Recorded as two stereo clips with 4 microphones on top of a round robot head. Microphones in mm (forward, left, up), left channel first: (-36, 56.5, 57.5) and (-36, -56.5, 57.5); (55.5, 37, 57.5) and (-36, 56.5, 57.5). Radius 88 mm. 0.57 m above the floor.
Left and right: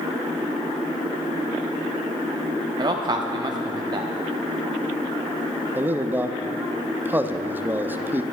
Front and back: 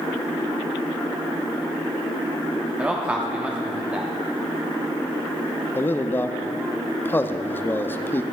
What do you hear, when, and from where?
2.8 s a man speaking: 120° right, 0.9 m
5.8 s a man speaking: 40° right, 0.6 m